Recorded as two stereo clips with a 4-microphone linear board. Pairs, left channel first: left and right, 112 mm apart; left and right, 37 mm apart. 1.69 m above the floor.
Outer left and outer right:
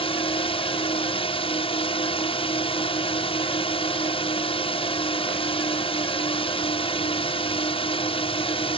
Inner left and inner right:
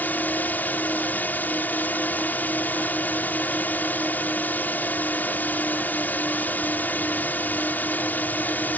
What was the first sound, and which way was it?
A drone, 55° left (ahead or behind).